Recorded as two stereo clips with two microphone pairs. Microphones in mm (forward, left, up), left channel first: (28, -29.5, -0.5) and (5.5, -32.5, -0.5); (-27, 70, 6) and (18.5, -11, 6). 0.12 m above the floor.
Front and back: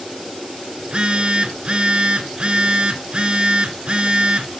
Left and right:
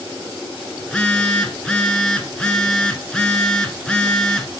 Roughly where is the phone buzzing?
Behind.